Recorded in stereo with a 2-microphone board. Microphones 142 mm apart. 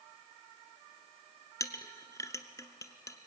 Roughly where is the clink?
Left.